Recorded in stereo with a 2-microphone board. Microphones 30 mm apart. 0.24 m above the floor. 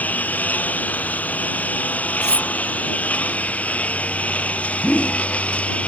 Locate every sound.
0.0 s a lawn mower: 65° left (ahead or behind); by 5.9 s 50° left (ahead or behind)
2.2 s cutlery clinking: 25° right (ahead or behind)
4.8 s a whoosh: 80° left